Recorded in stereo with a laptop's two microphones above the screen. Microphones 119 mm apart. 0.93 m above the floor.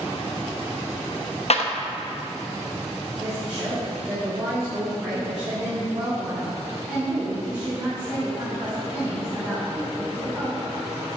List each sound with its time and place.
1.5 s a clap: 60° left (ahead or behind), 0.6 m
3.2 s a woman speaking: 5° right (ahead or behind), 3 m